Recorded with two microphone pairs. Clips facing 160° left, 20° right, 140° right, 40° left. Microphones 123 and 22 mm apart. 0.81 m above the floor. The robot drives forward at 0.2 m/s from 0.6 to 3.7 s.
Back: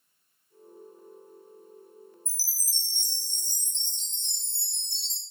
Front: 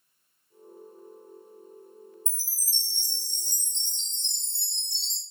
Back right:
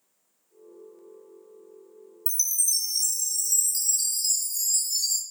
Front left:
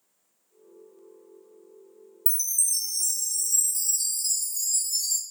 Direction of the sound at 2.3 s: 160° right.